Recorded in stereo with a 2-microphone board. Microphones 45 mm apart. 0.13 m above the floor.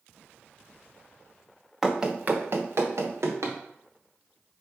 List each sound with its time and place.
1.8 s running footsteps: 5° right (ahead or behind), 0.8 m; by 3.6 s 85° right, 1.6 m